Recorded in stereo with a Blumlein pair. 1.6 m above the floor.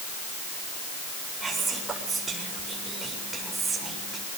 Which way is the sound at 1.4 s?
10° right.